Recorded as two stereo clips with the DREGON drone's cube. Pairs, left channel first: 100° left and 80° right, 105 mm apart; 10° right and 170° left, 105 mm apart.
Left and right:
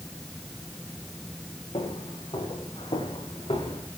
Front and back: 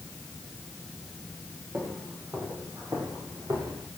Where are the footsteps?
105° left, 7.5 m; by 3.9 s 120° left, 5.5 m.